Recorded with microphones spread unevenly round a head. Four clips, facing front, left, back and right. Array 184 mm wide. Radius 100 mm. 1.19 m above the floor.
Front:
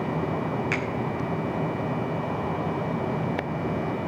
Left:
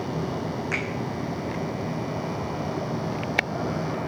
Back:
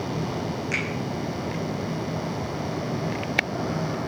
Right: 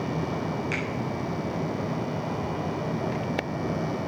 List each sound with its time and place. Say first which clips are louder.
0.7 s a finger snap: left 1 dB, front 1 dB; 35° left, 6.5 m